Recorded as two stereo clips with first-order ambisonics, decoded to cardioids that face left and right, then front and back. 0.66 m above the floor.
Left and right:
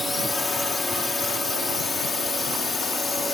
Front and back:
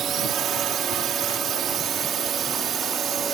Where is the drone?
160° left; by 3.4 s 150° left.